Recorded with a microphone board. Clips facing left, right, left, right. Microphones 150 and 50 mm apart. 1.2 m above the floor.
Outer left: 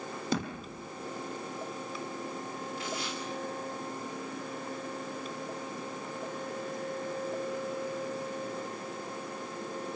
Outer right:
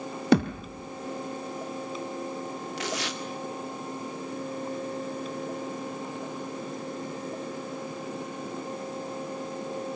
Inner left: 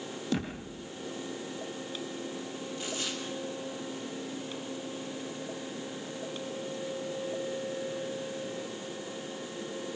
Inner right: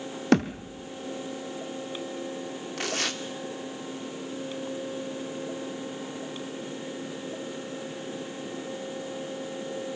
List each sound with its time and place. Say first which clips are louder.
0.3 s a thud: outer right 12 dB, inner right 11 dB; 70° right (ahead or behind), 3 m
2.8 s tearing paper: outer right 5 dB, inner right 7 dB; 85° right, 2.5 m